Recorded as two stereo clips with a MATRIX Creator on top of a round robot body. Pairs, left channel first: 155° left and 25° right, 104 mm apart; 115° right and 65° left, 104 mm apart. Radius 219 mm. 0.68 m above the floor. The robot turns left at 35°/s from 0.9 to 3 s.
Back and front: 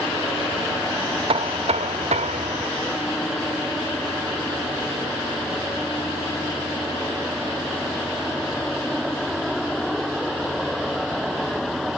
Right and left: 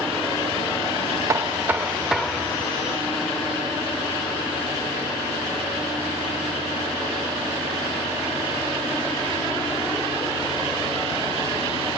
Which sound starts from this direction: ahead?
Knocking, at 1.3 s.